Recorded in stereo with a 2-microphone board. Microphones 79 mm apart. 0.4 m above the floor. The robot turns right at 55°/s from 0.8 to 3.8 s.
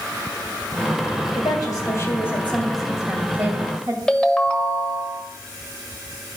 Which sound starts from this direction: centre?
A ringtone, at 4.1 s.